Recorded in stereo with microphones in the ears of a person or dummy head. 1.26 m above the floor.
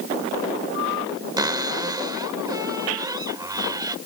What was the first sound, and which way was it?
A cupboard door, 25° right (ahead or behind).